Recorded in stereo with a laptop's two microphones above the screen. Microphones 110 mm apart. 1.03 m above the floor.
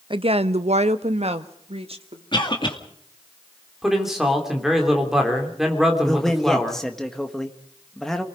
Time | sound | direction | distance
0.1 | a woman speaking | 45° right (ahead or behind) | 0.6 m
2.3 | a cough | 45° left (ahead or behind) | 2 m
3.8 | a man speaking | centre (ahead or behind) | 2.5 m
6.0 | a man speaking | 5° left (ahead or behind) | 1.4 m